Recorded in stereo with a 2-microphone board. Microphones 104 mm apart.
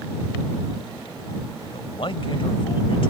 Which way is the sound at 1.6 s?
55° left (ahead or behind).